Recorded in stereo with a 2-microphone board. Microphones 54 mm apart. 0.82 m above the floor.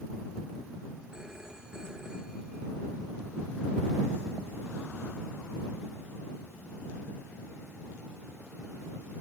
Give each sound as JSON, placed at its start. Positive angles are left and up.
{"t": 1.1, "sound": "a phone ringing", "side_deg": -15}